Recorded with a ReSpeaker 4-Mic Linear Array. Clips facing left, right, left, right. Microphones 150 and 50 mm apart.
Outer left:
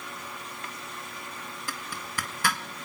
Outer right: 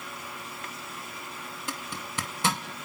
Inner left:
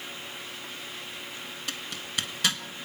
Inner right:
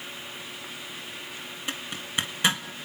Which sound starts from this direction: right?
A zipper, at 1.7 s.